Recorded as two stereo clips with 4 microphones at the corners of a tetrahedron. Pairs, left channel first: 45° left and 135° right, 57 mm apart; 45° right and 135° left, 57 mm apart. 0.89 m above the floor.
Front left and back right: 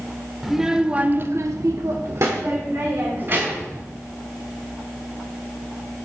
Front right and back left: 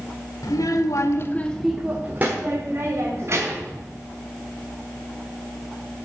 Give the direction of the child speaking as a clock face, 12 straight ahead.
2 o'clock.